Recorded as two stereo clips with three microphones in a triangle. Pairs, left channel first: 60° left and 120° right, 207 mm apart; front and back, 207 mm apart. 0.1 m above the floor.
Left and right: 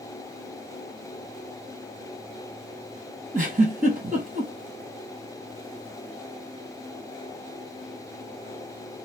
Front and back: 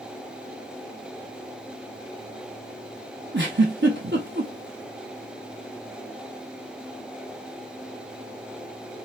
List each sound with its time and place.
3.3 s a giggle: 160° right, 1.2 m